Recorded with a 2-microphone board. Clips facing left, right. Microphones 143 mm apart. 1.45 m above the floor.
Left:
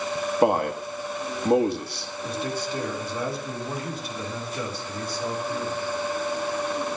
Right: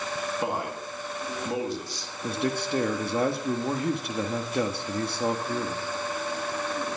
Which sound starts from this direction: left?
A man speaking, at 0.4 s.